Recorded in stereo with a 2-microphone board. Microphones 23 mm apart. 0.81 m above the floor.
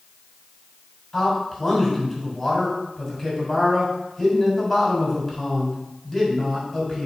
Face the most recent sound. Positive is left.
turn(degrees=15)  # may be behind; listen again after turning